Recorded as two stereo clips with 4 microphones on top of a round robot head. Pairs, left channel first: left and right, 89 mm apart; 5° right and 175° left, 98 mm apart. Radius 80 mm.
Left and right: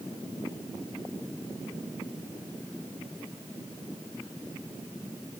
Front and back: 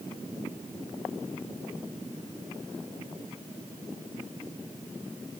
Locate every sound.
Only background noise.